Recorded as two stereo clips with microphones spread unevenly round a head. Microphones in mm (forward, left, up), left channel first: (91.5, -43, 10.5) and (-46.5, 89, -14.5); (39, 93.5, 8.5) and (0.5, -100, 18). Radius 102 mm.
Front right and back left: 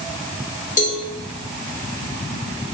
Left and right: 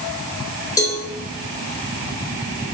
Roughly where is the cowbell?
Ahead.